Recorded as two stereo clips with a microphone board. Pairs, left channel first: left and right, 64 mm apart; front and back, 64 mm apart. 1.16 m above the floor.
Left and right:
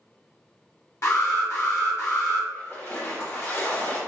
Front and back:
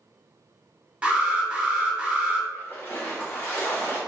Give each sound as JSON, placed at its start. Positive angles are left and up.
{"t": 1.0, "sound": "an alarm", "azimuth_deg": 115, "distance_m": 1.0}
{"t": 2.5, "sound": "a splash", "azimuth_deg": 50, "distance_m": 1.2}